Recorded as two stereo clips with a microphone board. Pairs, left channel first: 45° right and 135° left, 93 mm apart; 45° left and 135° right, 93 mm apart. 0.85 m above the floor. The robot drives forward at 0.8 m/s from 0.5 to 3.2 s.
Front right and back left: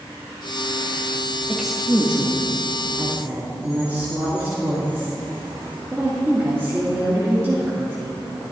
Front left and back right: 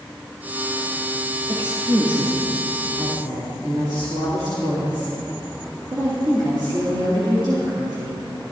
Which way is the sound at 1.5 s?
135° right.